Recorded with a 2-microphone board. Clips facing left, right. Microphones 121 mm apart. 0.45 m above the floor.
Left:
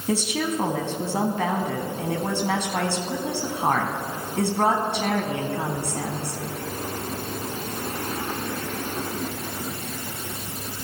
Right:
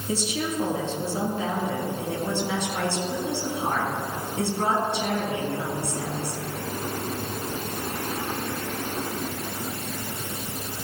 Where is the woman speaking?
65° left (ahead or behind), 4 m.